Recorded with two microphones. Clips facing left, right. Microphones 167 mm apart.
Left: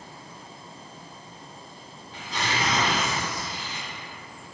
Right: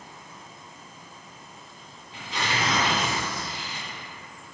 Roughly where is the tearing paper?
Left.